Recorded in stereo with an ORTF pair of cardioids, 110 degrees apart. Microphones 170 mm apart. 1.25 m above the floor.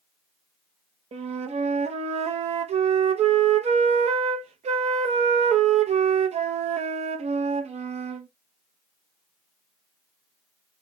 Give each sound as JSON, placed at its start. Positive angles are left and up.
{"t": 1.1, "sound": "a flute", "azimuth_deg": -40, "distance_m": 0.9}